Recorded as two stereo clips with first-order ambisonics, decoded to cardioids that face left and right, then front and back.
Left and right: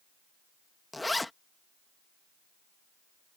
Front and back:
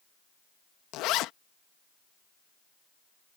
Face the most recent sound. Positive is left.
turn(degrees=5)